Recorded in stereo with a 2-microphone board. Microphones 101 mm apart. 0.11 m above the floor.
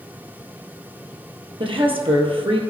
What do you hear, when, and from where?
1.6 s a woman speaking: 60° right (ahead or behind), 2 m